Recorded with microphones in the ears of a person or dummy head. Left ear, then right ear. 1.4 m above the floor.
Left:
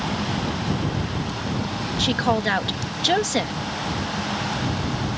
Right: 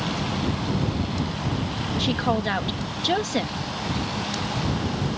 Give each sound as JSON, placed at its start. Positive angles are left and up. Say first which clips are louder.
{"t": 2.0, "sound": "a woman speaking", "louder": "left 4 dB", "side_deg": 20}